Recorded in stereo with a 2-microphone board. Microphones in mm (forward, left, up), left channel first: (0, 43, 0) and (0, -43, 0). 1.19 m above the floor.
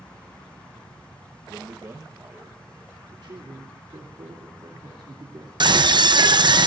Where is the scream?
60° right (ahead or behind), 0.8 m.